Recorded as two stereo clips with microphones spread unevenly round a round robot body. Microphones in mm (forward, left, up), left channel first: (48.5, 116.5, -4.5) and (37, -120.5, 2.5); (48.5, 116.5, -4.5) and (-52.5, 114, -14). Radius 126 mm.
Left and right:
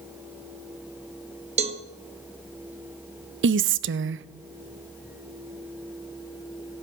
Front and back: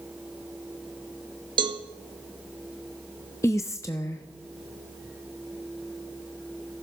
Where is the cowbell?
155° right, 0.8 m.